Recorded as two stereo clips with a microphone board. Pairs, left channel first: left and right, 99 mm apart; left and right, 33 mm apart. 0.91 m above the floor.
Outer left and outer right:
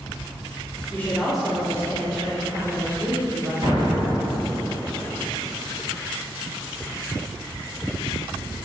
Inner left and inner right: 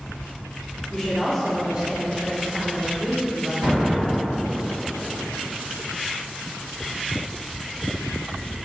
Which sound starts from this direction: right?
An explosion, at 3.6 s.